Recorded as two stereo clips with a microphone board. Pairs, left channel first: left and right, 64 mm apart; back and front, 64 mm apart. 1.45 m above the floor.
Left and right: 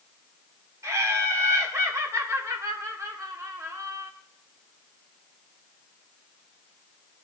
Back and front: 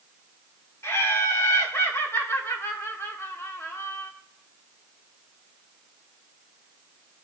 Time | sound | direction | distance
0.8 | laughter | 130° right | 1.7 m